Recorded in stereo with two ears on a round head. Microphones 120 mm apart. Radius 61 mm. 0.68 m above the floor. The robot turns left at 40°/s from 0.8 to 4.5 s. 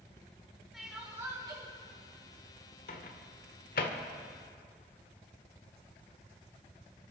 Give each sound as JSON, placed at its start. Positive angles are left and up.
{"t": 0.7, "sound": "crying", "azimuth_deg": 0, "distance_m": 4.5}
{"t": 2.9, "sound": "a microwave", "side_deg": 65, "distance_m": 1.5}